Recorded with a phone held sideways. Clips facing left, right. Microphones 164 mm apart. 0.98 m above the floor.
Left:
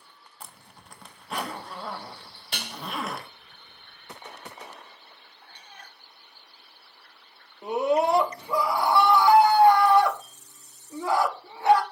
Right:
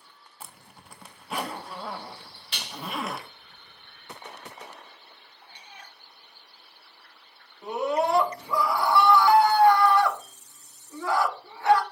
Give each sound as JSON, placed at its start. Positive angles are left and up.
{"t": 0.4, "sound": "a zipper", "side_deg": -5, "distance_m": 1.2}
{"t": 2.5, "sound": "dishes clattering", "side_deg": 50, "distance_m": 0.6}
{"t": 5.4, "sound": "a cat meowing", "side_deg": -10, "distance_m": 1.1}
{"t": 7.6, "sound": "a scream", "side_deg": 20, "distance_m": 1.8}